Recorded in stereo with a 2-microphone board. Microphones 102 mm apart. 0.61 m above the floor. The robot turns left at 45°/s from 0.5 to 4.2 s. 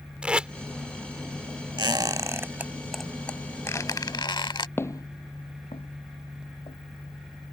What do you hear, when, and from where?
0.2 s tape being pulled: 10° right (ahead or behind)
1.8 s a squeak: 50° right (ahead or behind); by 4.7 s 50° left (ahead or behind)
4.8 s footsteps: 25° left (ahead or behind); by 6.8 s 70° left (ahead or behind)